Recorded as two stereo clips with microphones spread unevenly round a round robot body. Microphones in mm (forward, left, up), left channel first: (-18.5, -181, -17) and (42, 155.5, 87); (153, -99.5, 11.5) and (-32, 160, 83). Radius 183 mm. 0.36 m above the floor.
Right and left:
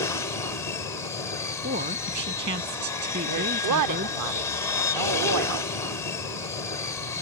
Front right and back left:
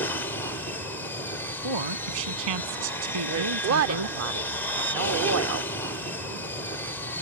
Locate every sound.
0.0 s an aircraft: 95° right
1.6 s a woman speaking: 145° left
3.3 s a woman speaking: 105° left